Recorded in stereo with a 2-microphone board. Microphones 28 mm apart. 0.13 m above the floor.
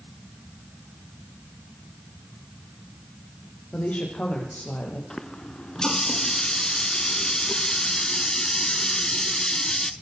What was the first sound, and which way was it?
A woman speaking, 60° left (ahead or behind).